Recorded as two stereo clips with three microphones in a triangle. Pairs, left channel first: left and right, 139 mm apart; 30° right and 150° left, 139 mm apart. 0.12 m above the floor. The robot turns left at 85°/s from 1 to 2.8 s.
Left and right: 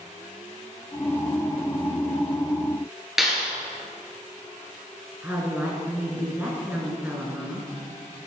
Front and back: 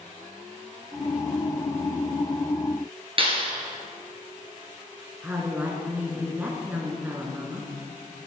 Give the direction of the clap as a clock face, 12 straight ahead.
6 o'clock.